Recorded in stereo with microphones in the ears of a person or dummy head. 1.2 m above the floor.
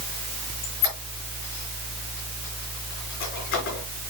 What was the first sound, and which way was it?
A squeak, 45° left (ahead or behind).